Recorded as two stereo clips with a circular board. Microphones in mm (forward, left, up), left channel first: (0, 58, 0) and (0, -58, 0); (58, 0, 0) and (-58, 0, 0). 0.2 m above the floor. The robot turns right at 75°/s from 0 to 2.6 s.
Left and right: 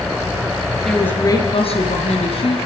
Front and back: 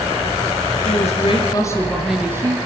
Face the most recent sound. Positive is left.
turn(degrees=130)